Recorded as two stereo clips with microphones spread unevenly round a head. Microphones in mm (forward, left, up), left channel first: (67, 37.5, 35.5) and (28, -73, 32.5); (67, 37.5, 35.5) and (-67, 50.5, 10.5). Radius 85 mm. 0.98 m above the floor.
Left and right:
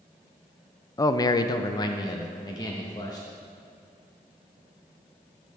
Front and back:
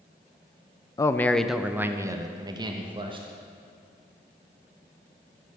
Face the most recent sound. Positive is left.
turn(degrees=130)